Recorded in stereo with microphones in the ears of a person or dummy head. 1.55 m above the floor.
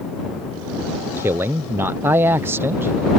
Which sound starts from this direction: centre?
A man speaking, at 1.2 s.